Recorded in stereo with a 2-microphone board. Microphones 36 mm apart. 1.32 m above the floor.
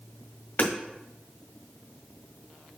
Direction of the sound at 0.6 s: 45° left (ahead or behind).